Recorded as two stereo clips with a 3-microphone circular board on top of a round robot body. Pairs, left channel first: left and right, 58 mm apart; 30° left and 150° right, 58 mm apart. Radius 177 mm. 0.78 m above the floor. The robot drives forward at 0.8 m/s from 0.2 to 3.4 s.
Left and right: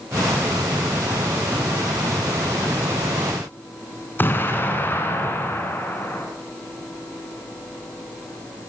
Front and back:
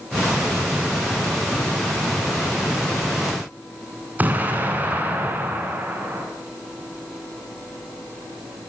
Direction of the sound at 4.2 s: 145° left.